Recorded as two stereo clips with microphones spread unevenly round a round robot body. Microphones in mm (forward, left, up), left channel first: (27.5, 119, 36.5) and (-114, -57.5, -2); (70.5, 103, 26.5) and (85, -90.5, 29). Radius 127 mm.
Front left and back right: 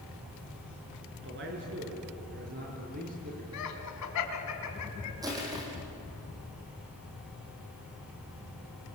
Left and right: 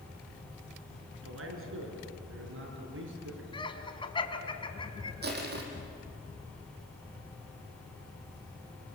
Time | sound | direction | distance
1.1 | a man speaking | 85° right | 5 m
3.5 | laughter | 30° left | 3.5 m
5.2 | crushing | 50° right | 4.5 m